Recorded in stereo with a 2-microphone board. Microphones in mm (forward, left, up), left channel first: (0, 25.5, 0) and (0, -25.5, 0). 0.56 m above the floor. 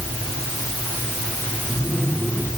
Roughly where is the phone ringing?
No phone ringing in this recording.